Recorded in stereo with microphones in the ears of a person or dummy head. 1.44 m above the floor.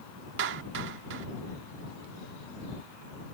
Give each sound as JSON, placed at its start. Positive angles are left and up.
{"t": 0.4, "sound": "a clap", "side_deg": -65}